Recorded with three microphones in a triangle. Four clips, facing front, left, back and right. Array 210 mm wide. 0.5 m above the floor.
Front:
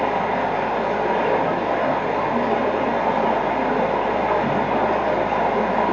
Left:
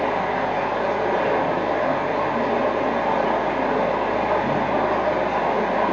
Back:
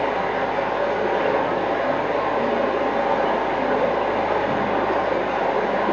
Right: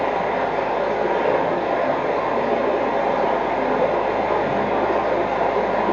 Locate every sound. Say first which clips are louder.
0.0 s running water: right 1 dB, front 1 dB; 5° right, 1.9 m